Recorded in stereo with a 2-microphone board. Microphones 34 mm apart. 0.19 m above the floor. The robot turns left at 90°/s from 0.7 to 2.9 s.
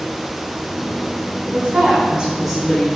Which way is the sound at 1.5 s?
75° right.